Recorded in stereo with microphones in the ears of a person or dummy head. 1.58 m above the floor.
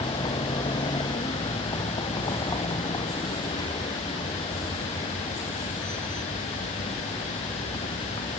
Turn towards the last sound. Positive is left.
turn(degrees=20)  # may be behind; listen again after turning